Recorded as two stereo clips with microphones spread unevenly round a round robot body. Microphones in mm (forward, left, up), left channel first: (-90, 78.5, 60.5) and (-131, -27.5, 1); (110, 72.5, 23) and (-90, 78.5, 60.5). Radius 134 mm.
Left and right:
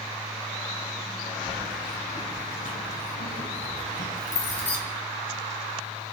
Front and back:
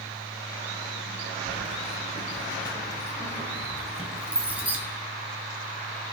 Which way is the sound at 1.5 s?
45° left.